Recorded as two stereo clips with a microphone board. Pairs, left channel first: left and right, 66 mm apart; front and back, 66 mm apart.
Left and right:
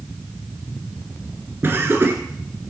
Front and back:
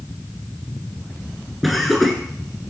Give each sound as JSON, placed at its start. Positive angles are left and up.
{"t": 1.6, "sound": "laughter", "azimuth_deg": -90, "distance_m": 1.5}